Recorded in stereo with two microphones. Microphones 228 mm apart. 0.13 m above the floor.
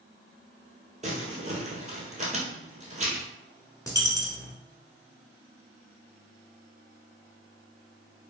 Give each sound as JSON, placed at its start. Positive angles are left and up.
{"t": 1.0, "sound": "crumpling", "side_deg": -30, "distance_m": 1.1}
{"t": 3.9, "sound": "a dropped coin", "side_deg": 15, "distance_m": 0.7}